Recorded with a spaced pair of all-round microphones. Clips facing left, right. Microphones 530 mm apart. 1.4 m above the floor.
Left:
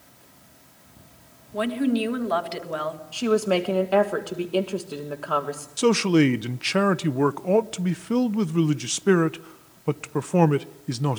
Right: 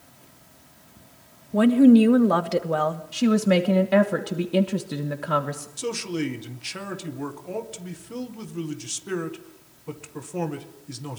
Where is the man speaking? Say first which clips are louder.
Left 10 dB; 80° left, 0.9 m.